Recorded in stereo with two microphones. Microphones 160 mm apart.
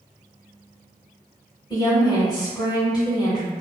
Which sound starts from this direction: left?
A woman speaking, at 1.7 s.